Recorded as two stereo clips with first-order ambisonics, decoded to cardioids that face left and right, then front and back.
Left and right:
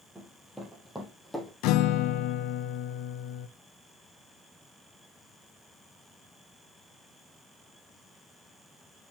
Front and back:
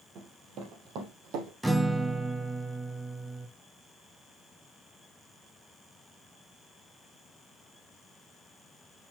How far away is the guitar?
About 0.6 m.